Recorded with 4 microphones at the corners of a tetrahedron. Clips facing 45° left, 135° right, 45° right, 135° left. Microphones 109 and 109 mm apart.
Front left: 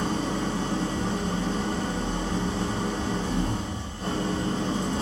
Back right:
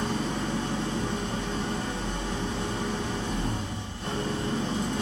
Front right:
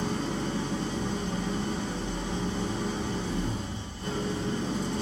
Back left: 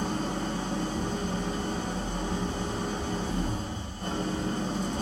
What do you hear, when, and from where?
0.0 s an engine running: 100° left, 0.7 m